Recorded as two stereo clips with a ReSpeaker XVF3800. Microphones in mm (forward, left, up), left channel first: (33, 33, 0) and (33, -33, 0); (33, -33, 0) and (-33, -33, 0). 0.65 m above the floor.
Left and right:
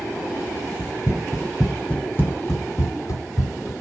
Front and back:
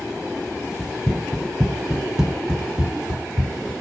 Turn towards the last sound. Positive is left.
turn(degrees=100)